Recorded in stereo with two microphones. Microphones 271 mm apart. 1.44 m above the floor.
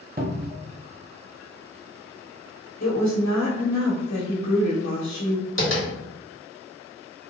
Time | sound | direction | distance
0.2 | a cupboard door | 35° right (ahead or behind) | 0.6 m
2.8 | a woman speaking | 80° left | 1.6 m
5.6 | tapping | 45° left (ahead or behind) | 1.7 m